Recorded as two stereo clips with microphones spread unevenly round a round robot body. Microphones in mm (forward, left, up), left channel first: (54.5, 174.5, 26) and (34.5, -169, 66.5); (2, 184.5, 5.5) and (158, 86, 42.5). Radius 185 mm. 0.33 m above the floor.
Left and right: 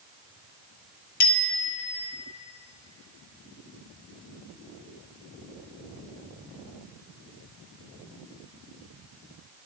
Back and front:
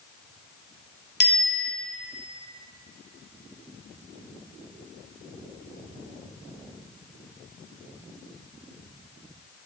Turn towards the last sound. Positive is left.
turn(degrees=120)